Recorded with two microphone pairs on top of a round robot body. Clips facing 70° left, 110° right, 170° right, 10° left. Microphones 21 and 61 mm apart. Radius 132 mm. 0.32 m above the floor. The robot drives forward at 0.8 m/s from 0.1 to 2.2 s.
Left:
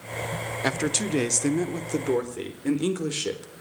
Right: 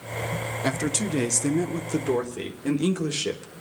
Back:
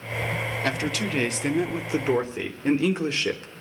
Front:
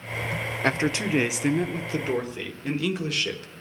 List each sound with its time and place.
0.6 s a man speaking: 40° left, 1.2 m; by 3.5 s 145° left, 1.2 m